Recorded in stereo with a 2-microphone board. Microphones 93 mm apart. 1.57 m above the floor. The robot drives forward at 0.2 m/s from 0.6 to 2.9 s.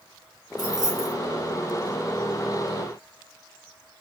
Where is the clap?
No clap in this recording.